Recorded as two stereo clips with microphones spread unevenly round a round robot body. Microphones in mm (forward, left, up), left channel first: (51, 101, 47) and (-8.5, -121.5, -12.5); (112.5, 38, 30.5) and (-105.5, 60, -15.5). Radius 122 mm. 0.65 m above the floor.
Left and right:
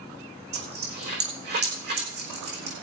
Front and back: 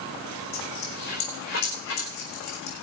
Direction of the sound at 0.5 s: 55° right.